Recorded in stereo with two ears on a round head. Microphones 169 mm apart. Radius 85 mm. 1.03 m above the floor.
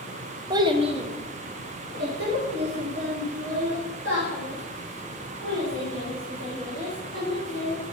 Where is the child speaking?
20° right (ahead or behind), 0.8 m; by 7.8 s 90° right, 4.5 m.